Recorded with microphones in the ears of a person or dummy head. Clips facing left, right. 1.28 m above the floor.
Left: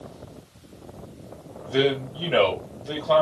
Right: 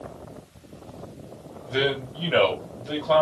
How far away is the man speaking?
About 2 m.